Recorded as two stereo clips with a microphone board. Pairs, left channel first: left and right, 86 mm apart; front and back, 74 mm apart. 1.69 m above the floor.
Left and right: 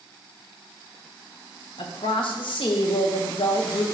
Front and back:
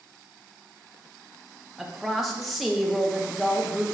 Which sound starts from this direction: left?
A woman speaking, at 1.8 s.